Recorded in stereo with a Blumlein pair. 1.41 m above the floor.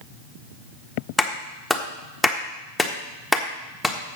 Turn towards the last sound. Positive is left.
turn(degrees=5)